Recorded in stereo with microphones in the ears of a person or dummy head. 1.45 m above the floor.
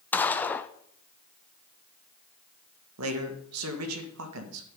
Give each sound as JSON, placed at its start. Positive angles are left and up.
{"t": 0.1, "sound": "a gunshot", "side_deg": 5, "distance_m": 0.5}
{"t": 3.0, "sound": "a man speaking", "side_deg": -85, "distance_m": 1.8}